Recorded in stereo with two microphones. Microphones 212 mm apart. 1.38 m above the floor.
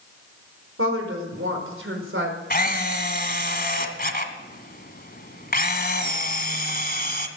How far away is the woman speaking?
About 5 m.